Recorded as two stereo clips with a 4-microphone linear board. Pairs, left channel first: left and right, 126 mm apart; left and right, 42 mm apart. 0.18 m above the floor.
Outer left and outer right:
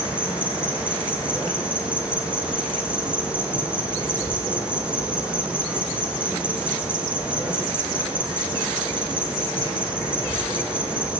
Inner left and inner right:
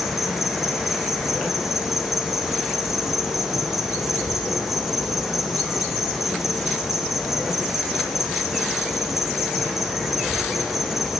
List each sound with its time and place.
0.0 s an insect: 10° right (ahead or behind), 0.9 m